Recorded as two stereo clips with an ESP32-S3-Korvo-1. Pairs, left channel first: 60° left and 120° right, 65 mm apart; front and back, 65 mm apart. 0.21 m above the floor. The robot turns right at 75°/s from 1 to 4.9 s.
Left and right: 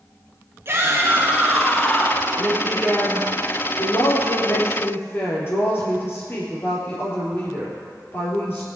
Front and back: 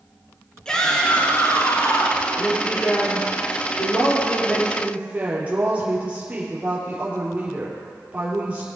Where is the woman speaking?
80° right, 4.5 m; by 8.7 s 110° left, 4.5 m.